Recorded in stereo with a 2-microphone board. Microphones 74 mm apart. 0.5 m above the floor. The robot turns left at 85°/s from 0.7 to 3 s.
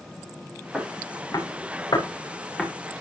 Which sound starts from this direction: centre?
Footsteps, at 0.7 s.